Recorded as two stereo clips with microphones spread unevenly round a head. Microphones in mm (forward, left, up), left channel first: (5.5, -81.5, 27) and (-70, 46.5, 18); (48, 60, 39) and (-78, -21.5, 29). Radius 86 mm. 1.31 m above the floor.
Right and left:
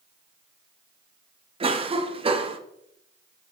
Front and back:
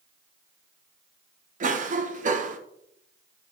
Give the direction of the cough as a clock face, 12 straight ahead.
6 o'clock.